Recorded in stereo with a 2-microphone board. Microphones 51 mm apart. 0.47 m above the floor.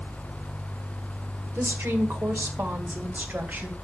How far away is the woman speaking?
About 1.9 m.